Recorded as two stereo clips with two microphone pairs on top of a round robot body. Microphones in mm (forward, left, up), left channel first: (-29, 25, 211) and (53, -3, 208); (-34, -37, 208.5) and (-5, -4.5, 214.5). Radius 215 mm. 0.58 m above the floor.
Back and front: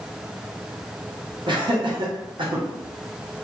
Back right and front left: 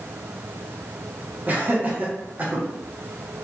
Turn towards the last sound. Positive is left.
turn(degrees=-5)